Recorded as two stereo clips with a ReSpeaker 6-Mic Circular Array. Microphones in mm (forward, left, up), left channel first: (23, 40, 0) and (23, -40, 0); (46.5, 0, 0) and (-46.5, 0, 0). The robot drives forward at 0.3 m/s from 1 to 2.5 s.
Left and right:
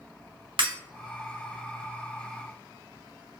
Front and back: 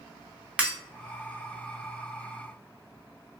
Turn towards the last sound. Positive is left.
turn(degrees=-130)